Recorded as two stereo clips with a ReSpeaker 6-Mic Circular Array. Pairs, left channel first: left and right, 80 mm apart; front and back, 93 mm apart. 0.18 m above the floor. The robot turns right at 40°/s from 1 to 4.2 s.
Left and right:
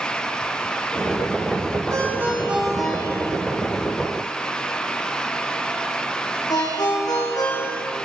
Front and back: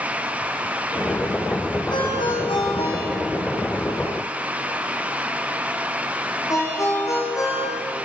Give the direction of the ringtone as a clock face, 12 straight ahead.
1 o'clock.